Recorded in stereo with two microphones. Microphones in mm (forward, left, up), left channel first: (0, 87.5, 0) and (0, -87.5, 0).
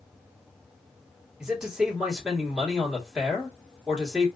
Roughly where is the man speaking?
Centre.